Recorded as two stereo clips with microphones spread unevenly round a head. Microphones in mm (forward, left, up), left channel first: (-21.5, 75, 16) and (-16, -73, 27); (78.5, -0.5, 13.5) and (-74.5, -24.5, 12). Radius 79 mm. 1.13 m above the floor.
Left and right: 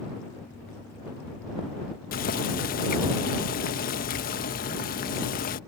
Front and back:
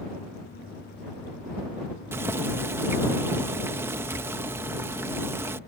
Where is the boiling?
115° left.